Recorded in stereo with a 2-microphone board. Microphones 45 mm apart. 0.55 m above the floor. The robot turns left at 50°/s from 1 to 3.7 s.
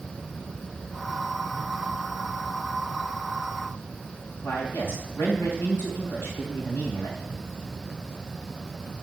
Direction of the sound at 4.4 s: 75° left (ahead or behind).